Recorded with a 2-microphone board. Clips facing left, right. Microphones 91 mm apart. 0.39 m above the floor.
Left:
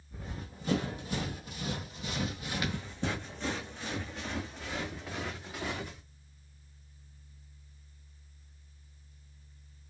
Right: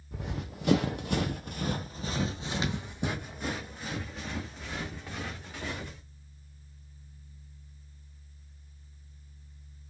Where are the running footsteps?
70° right (ahead or behind), 1.0 m; by 6.0 s 5° left (ahead or behind), 2.5 m.